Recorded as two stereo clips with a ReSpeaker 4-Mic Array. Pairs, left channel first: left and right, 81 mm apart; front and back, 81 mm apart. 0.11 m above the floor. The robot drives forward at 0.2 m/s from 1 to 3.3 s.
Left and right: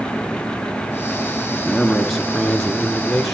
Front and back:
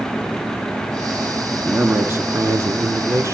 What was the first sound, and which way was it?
A man speaking, 170° left.